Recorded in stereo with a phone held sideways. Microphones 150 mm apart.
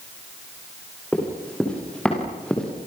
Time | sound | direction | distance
1.1 | running footsteps | 10° left (ahead or behind) | 9 m